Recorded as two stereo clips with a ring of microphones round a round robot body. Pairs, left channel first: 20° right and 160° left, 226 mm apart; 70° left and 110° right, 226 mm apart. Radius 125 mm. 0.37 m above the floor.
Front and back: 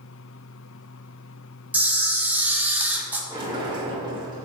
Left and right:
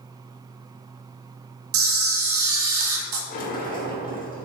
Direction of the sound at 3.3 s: 95° left.